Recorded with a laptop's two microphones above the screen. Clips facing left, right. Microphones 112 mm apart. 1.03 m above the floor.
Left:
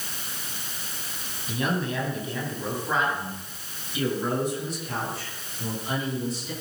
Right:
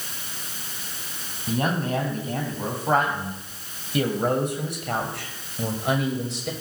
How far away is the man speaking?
About 7 m.